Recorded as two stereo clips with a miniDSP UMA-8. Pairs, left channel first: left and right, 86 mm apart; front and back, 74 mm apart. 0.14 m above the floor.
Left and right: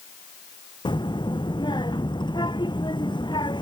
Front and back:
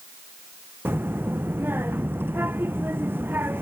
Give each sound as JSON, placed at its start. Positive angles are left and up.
{"t": 0.8, "sound": "a child speaking", "azimuth_deg": 120}